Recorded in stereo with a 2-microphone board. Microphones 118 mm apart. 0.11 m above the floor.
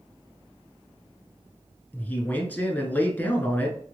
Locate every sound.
1.9 s a man speaking: 15° left (ahead or behind), 1.1 m